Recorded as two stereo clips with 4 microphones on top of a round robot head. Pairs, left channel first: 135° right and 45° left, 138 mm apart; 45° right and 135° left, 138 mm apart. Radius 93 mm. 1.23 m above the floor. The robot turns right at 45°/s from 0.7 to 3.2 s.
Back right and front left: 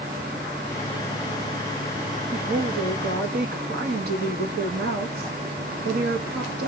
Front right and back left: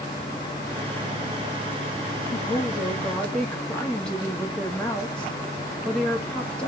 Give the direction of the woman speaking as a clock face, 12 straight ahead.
12 o'clock.